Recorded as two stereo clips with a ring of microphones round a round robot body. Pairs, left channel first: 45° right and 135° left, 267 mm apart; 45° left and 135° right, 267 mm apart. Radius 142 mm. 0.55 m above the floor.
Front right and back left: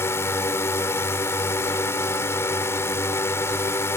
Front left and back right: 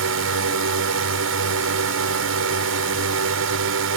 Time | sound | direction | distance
0.0 | a drone | 125° right | ?